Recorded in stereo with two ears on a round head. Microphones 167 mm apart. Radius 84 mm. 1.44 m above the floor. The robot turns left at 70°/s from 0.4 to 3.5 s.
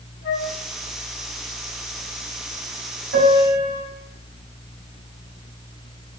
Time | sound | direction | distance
0.2 | a flute | 80° left | 3.5 m
3.1 | a piano | 75° right (ahead or behind) | 4 m